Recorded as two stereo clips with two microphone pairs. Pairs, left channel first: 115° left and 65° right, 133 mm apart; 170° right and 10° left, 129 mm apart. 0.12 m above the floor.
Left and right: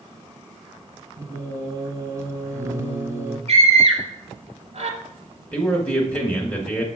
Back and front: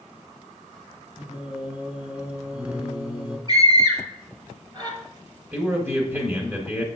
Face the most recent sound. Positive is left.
turn(degrees=55)